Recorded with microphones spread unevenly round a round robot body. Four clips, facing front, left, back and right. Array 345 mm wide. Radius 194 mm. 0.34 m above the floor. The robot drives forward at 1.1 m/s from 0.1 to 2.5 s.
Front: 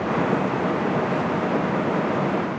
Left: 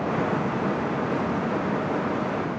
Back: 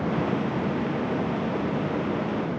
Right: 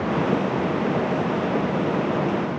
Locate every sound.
Only background noise.